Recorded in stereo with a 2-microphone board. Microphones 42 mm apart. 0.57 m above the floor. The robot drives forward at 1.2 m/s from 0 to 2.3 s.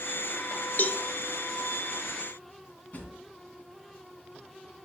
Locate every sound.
0.8 s a cowbell: 50° left (ahead or behind), 0.5 m; by 1.0 s 30° left (ahead or behind), 0.7 m
2.9 s a drawer: 30° left (ahead or behind), 3 m